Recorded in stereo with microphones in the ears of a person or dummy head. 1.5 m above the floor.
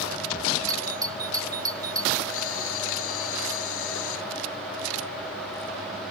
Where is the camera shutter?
85° left.